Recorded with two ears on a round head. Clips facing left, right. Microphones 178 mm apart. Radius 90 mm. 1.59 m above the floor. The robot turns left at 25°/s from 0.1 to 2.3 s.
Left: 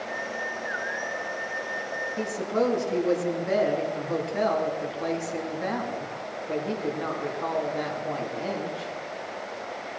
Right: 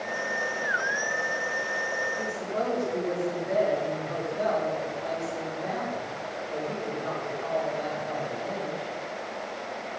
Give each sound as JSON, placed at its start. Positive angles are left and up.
{"t": 2.2, "sound": "a woman speaking", "side_deg": 75, "distance_m": 3.5}